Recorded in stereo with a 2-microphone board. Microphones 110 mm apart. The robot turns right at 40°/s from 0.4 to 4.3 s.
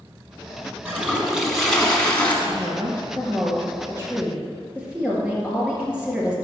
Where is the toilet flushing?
25° right, 1.4 m; by 2.4 s 35° left, 1.4 m.